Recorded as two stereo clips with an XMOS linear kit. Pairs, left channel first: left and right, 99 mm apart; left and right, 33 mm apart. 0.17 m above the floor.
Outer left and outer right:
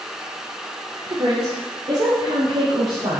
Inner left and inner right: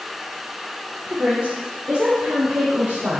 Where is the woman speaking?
60° right (ahead or behind), 4 m; by 3.2 s 70° right (ahead or behind), 4.5 m.